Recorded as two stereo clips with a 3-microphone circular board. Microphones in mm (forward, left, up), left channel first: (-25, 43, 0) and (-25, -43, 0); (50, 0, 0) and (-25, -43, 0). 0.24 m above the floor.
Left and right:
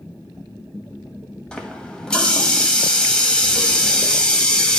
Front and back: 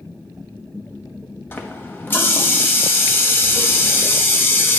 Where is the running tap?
25° left, 0.9 m.